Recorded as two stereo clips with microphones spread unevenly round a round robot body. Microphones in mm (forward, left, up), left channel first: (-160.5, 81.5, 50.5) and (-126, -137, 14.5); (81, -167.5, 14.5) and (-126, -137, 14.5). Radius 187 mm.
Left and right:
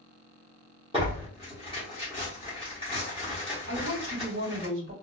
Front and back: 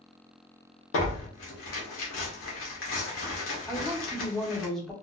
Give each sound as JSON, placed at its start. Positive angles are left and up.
{"t": 0.9, "sound": "tearing paper", "azimuth_deg": -15, "distance_m": 1.2}
{"t": 3.7, "sound": "a woman speaking", "azimuth_deg": -95, "distance_m": 1.9}